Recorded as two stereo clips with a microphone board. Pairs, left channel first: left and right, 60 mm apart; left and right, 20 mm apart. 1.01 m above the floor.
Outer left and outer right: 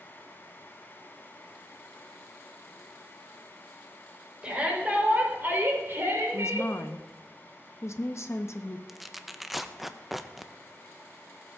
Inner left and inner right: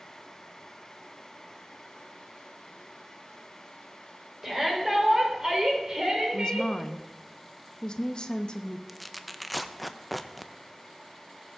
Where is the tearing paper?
Centre (ahead or behind), 0.6 m.